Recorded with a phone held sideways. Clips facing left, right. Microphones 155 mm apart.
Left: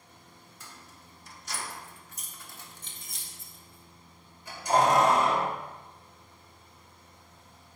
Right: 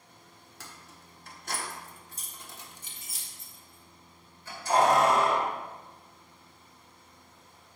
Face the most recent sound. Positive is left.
turn(degrees=25)  # may be behind; listen again after turning